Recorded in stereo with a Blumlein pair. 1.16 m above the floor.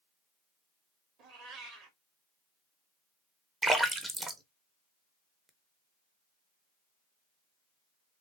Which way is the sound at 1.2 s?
35° right.